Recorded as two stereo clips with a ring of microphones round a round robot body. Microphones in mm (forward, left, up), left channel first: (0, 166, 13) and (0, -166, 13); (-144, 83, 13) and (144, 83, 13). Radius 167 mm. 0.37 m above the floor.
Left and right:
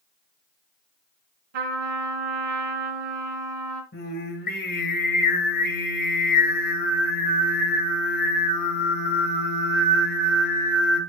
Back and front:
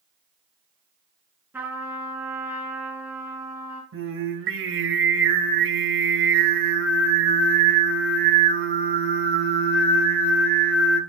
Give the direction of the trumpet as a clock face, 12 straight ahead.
3 o'clock.